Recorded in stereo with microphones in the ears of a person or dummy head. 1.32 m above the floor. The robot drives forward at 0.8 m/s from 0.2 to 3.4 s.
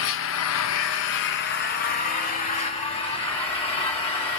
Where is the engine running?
70° left (ahead or behind), 1.0 m; by 4.4 s 25° left (ahead or behind), 2.5 m.